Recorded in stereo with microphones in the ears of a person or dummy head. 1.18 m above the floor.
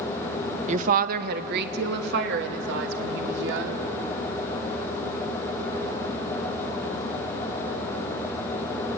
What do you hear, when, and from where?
0.7 s a woman speaking: 40° right (ahead or behind), 1.2 m; by 3.9 s 70° right (ahead or behind), 4 m